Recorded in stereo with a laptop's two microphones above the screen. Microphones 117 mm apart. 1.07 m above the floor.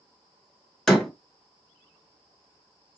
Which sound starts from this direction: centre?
A door slam, at 0.9 s.